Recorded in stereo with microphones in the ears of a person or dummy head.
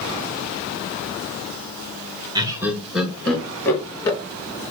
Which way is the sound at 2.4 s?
20° right (ahead or behind).